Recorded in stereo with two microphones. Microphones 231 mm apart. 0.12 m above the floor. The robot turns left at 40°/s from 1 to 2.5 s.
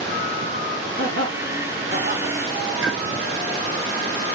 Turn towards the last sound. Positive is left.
turn(degrees=-60)  # may be behind; listen again after turning